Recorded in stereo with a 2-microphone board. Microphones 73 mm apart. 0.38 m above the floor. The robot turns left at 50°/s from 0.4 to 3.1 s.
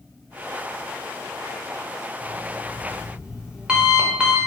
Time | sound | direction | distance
2.2 | an alarm clock | 110° right | 0.6 m